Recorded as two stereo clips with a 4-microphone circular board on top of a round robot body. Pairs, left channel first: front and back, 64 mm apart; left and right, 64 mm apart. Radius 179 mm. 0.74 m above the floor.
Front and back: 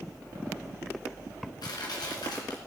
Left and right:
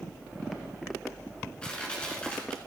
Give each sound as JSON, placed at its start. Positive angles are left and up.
{"t": 1.6, "sound": "crushing", "azimuth_deg": 15, "distance_m": 1.9}